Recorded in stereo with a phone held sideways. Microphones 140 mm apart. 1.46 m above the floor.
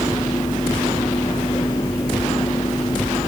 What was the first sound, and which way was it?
A fan, 30° left (ahead or behind).